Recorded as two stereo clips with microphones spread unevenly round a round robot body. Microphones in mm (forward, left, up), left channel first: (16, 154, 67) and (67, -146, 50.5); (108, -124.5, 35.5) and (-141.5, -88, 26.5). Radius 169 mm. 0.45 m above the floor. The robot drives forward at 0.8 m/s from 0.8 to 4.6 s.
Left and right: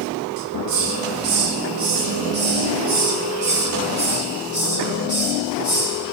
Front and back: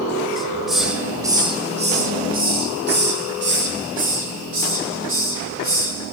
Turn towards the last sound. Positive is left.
turn(degrees=-155)